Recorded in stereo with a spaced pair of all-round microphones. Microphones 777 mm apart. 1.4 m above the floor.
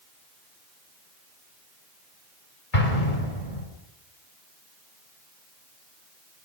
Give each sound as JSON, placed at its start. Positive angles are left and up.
{"t": 2.7, "sound": "an explosion", "side_deg": 85, "distance_m": 5.5}